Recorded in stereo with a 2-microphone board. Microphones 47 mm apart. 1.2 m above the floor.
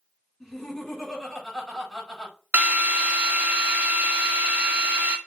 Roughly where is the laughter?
Centre.